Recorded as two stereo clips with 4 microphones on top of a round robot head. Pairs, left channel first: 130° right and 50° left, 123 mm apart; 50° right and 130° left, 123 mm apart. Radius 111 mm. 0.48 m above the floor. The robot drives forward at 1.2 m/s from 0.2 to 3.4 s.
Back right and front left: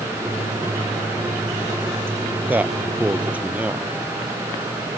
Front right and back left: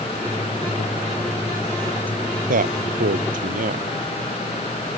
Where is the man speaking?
130° left.